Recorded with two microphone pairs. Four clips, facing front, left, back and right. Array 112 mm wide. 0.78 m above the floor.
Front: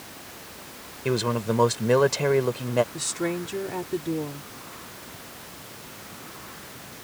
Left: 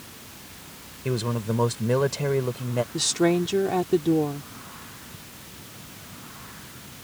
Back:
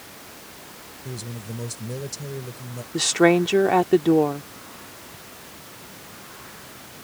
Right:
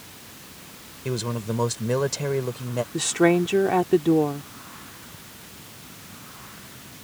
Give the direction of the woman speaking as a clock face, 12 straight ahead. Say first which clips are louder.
Right 4 dB, back 11 dB; 6 o'clock.